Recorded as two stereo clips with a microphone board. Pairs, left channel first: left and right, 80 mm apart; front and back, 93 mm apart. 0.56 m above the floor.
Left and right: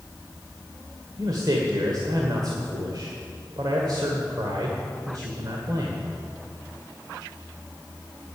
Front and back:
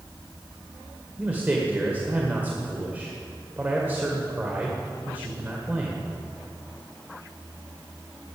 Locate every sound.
1.2 s a man speaking: 115° right, 1.7 m